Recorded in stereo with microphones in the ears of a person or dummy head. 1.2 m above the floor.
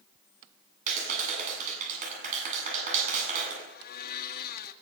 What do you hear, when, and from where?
0.9 s a clap: 40° right (ahead or behind), 8 m
3.7 s a blender: 55° left (ahead or behind), 1.7 m